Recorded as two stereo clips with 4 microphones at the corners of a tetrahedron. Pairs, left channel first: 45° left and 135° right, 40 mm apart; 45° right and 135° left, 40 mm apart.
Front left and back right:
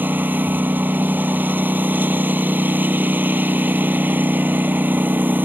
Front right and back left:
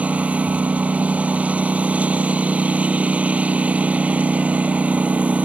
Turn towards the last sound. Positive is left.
turn(degrees=-170)